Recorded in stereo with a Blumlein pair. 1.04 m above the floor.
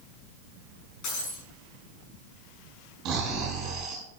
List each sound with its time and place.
1.0 s breaking glass: 40° left, 6 m
3.0 s snoring: 35° right, 5 m